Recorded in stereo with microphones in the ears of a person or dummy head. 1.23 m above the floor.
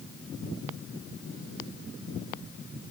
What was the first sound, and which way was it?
Only background noise.